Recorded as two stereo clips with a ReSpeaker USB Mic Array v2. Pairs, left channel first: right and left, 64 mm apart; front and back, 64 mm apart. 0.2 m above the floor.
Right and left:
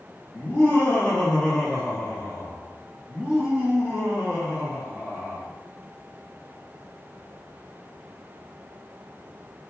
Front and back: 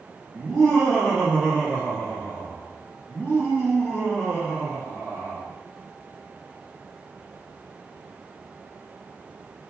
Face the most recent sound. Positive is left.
turn(degrees=50)